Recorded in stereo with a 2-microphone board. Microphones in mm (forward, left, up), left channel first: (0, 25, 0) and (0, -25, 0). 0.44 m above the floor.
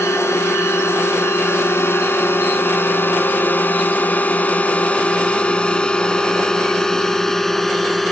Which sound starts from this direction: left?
A drone, at 0.0 s.